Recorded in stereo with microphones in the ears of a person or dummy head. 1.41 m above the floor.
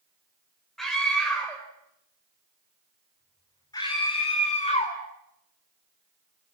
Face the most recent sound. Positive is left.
turn(degrees=30)  # may be behind; listen again after turning